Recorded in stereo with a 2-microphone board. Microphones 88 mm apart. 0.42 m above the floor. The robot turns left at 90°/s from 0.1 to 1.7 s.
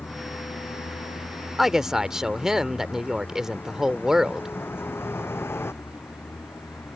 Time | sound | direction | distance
0.0 | a vehicle | 25° left (ahead or behind) | ?
1.6 | a woman speaking | centre (ahead or behind) | ?